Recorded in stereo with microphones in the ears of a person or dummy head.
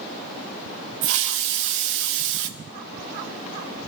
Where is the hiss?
65° right (ahead or behind), 0.6 m.